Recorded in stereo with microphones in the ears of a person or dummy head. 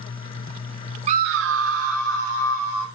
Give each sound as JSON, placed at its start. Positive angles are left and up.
{"t": 1.1, "sound": "a scream", "side_deg": -35, "distance_m": 0.5}